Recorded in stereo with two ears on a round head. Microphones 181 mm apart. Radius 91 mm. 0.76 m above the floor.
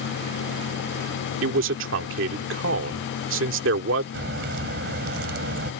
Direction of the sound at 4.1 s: 55° right (ahead or behind).